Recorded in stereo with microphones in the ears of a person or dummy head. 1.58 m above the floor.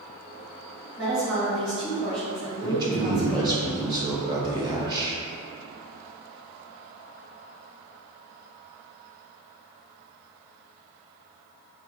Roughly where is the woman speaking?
Right.